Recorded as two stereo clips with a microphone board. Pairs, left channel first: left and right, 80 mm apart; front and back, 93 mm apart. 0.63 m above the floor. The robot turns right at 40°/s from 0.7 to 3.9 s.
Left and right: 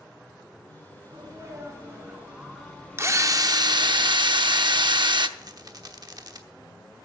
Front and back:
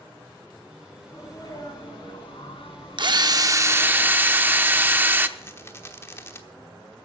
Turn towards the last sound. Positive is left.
turn(degrees=-60)